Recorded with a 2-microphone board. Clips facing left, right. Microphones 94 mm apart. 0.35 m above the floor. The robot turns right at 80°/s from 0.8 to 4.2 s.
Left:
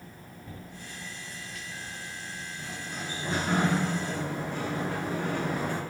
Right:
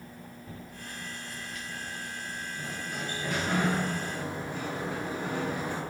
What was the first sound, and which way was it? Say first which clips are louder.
A sliding door: right 1 dB; 35° right.